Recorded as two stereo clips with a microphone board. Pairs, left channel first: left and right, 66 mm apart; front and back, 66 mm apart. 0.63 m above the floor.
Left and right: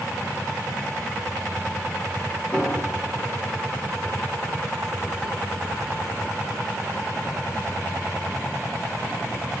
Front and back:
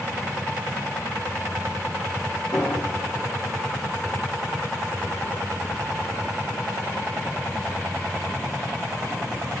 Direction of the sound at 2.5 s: 30° left.